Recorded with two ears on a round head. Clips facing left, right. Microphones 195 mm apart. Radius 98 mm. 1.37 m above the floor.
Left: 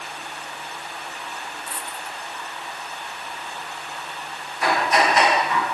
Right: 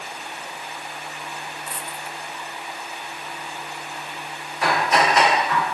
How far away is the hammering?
About 9 m.